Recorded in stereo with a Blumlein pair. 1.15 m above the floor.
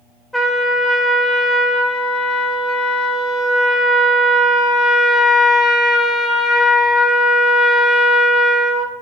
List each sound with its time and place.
0.3 s a trumpet: 5° left, 0.5 m